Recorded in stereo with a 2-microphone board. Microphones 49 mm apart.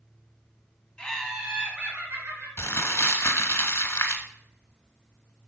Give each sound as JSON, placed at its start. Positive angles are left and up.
{"t": 1.0, "sound": "laughter", "side_deg": 20, "distance_m": 1.2}
{"t": 2.6, "sound": "crumpling", "side_deg": 60, "distance_m": 0.9}